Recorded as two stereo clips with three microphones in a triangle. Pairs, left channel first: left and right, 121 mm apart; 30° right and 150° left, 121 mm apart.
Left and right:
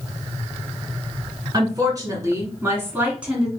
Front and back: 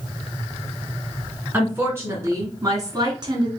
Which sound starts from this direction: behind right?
A woman speaking, at 1.5 s.